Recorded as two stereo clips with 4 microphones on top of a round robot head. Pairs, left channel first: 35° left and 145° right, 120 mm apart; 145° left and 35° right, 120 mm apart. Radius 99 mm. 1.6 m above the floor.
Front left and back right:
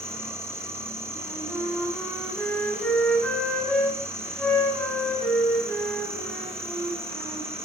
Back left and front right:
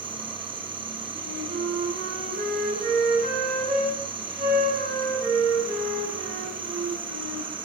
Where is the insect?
75° right, 1.6 m.